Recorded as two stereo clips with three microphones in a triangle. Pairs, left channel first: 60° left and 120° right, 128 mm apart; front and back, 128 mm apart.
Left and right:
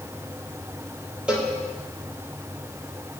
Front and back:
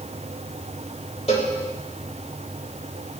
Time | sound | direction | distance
1.3 | a cowbell | 40° right | 3 m